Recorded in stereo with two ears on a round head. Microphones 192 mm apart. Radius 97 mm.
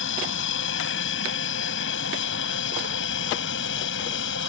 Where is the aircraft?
60° left (ahead or behind).